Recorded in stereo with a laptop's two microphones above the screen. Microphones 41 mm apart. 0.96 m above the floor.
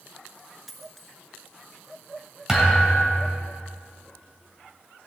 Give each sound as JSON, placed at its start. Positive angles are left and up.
{"t": 0.7, "sound": "a dropped coin", "side_deg": 0, "distance_m": 1.4}
{"t": 2.5, "sound": "a thud", "side_deg": -10, "distance_m": 1.9}